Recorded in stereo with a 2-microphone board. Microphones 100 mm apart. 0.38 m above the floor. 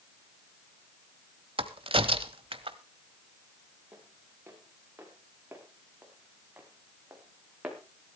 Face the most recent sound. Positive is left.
turn(degrees=-15)  # may be behind; listen again after turning